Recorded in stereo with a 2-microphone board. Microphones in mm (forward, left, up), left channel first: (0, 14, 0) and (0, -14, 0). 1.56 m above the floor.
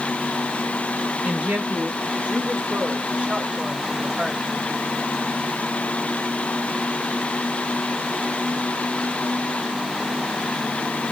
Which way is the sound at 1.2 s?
50° right (ahead or behind).